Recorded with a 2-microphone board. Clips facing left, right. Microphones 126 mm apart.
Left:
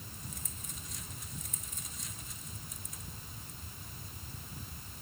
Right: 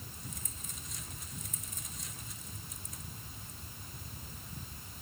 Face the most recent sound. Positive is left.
No sound to turn to.